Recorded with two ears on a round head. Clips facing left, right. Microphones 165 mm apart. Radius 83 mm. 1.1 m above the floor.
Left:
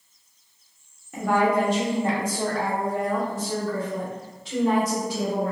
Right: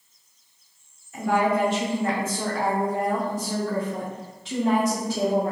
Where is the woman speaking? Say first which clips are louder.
Left 1 dB; 50° left (ahead or behind), 0.9 m; by 5.5 s 70° right (ahead or behind), 1.7 m.